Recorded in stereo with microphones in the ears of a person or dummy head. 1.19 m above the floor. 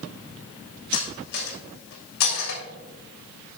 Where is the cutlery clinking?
70° left (ahead or behind), 3 m.